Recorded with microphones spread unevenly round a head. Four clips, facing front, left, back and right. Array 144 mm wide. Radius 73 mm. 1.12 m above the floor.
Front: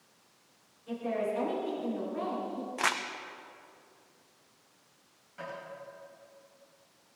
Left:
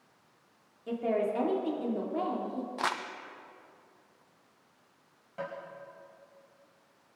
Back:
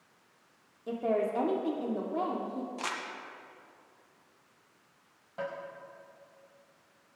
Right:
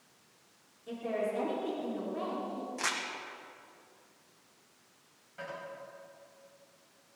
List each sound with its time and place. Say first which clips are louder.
0.9 s a woman speaking: left 4 dB, back 3 dB; 145° left, 2 m
2.8 s crumpling: left 6 dB, front 5 dB; 55° left, 0.8 m
5.4 s tapping: left 4 dB, back 5 dB; 140° left, 5 m